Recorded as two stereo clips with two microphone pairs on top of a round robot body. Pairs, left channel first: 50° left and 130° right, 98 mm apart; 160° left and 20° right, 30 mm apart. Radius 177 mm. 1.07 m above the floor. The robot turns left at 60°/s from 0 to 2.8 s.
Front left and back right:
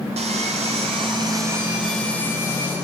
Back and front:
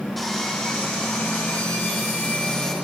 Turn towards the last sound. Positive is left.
turn(degrees=90)